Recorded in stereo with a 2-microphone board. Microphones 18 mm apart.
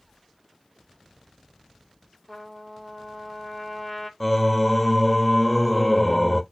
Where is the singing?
10° left (ahead or behind), 0.6 m.